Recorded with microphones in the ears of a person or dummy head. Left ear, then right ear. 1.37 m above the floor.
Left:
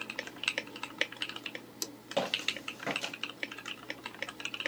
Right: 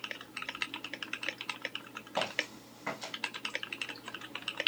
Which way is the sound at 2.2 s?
25° left (ahead or behind).